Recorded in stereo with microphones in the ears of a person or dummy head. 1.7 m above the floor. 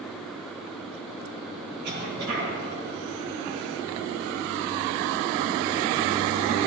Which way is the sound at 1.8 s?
65° right (ahead or behind).